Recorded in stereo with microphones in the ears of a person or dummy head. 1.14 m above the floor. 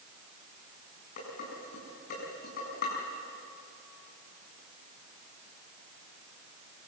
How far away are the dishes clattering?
About 7.5 m.